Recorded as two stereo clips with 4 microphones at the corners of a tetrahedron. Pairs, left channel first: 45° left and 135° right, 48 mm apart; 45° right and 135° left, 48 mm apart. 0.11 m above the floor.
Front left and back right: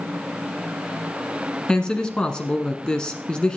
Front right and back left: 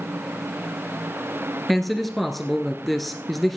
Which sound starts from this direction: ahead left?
A man speaking, at 1.7 s.